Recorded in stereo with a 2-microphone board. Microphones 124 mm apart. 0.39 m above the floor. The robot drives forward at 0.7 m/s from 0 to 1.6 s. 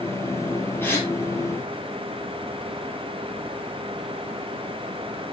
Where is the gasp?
15° left (ahead or behind), 3.5 m; by 1.1 s 20° left (ahead or behind), 3.5 m.